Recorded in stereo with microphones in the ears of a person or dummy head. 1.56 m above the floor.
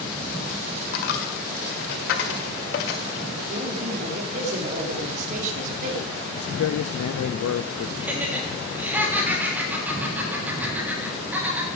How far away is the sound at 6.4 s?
About 0.5 m.